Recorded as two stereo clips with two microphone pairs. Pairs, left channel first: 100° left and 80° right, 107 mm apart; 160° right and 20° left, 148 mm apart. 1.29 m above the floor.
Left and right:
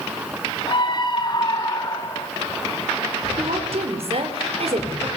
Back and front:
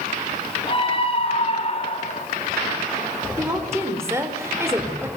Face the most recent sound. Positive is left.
turn(degrees=-50)